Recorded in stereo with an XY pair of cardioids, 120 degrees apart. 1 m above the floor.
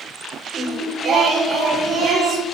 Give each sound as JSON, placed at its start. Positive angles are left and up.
{"t": 0.5, "sound": "singing", "azimuth_deg": -35, "distance_m": 3.5}